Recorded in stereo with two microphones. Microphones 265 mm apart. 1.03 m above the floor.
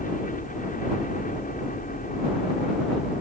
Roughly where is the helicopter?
Left.